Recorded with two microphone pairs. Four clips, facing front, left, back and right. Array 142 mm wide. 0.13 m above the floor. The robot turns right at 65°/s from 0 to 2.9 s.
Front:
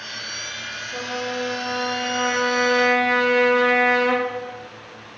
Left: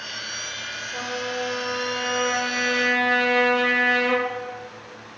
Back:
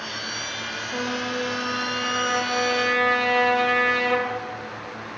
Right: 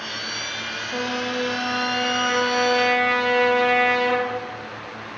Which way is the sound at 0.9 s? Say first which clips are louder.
Right 3 dB, even; 125° right.